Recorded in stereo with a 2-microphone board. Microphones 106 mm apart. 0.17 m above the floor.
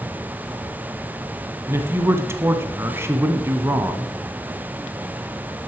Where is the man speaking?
25° right (ahead or behind), 1.1 m.